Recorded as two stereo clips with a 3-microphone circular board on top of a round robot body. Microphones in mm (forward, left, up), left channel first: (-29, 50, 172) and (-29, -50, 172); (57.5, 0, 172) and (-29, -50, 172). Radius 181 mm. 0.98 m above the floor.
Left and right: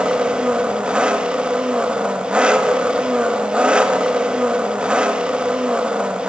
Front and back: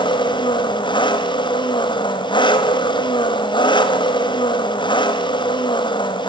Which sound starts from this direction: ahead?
An engine running, at 0.0 s.